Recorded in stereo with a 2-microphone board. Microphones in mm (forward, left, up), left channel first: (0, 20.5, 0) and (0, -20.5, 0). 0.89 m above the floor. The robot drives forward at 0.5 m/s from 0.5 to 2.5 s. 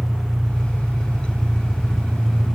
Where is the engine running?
Centre (ahead or behind), 2 m.